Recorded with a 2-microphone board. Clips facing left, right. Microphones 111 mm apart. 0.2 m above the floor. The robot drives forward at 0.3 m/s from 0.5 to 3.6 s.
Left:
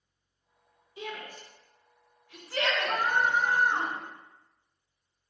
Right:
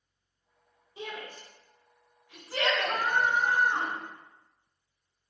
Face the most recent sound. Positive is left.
turn(degrees=10)  # may be behind; listen again after turning